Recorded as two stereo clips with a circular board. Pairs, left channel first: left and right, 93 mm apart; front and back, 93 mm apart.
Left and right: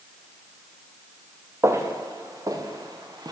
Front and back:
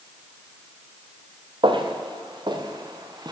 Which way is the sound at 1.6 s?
150° right.